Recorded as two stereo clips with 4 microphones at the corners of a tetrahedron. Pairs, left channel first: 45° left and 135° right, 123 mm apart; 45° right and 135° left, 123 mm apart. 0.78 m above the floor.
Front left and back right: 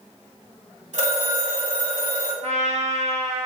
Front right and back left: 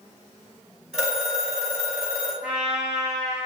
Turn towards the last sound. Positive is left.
turn(degrees=-145)